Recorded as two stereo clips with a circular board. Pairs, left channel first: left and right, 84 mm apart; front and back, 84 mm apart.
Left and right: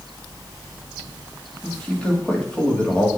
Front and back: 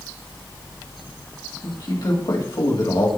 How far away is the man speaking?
About 2 m.